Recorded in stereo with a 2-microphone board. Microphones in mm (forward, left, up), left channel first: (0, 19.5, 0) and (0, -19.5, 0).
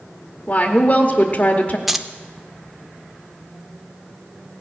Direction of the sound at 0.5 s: 40° left (ahead or behind).